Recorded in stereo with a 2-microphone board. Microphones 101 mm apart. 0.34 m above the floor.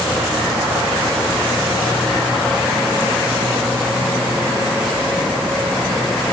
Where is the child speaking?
I don't hear a child speaking.